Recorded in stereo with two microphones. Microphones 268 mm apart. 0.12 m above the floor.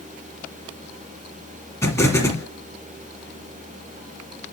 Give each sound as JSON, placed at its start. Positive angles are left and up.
{"t": 1.8, "sound": "an explosion", "side_deg": 10, "distance_m": 2.5}